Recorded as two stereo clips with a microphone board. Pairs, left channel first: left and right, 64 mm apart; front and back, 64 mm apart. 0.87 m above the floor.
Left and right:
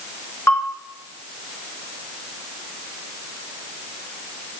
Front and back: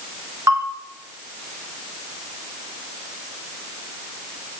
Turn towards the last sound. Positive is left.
turn(degrees=140)